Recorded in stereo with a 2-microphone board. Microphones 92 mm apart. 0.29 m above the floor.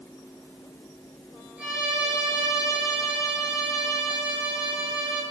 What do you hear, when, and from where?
1.6 s a violin: 10° right (ahead or behind), 4 m